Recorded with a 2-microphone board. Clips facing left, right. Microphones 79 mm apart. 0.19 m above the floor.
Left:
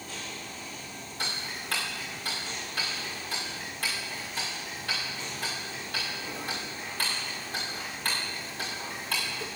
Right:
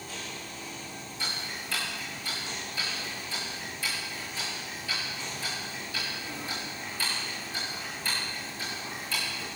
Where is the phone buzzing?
No phone buzzing in this recording.